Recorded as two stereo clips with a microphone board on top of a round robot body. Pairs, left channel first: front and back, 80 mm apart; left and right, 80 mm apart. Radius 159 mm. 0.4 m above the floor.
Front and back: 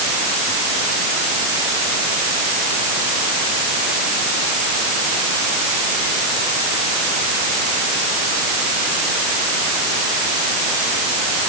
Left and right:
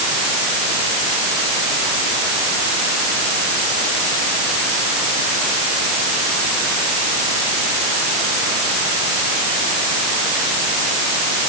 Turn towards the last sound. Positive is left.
No sound to turn to.